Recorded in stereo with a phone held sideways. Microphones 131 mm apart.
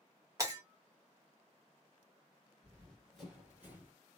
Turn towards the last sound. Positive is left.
turn(degrees=-15)  # may be behind; listen again after turning